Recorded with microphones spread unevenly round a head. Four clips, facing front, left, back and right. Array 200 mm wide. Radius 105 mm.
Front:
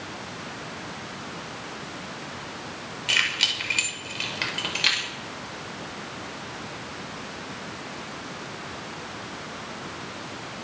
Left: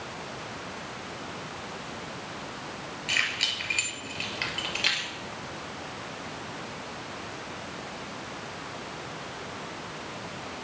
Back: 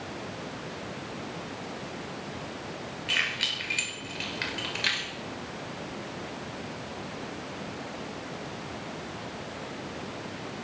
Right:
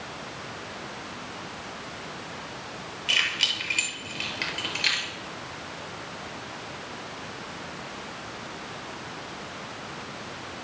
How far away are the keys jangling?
About 5 m.